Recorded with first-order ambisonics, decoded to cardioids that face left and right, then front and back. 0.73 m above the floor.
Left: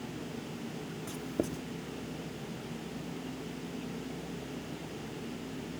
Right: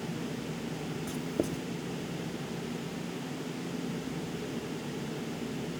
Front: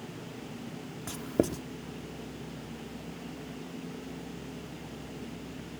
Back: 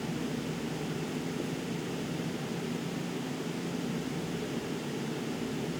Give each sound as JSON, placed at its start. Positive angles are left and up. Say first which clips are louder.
{"t": 1.1, "sound": "writing", "louder": "right 2 dB, front 5 dB", "azimuth_deg": -5}